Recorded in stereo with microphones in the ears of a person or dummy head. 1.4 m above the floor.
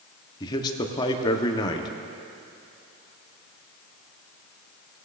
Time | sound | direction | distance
0.4 | a man speaking | 25° left (ahead or behind) | 0.8 m